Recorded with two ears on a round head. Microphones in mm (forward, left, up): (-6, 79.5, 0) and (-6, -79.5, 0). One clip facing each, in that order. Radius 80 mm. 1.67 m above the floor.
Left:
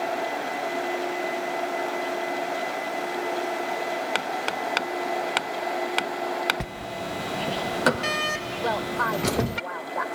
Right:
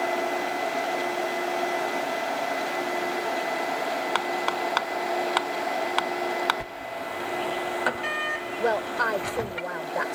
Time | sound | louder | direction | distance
4.2 | hammering | right 1 dB | 25° left (ahead or behind) | ?
6.6 | a sliding door | left 1 dB | 50° left (ahead or behind) | ?
8.6 | a woman speaking | right 2 dB | 30° right (ahead or behind) | ?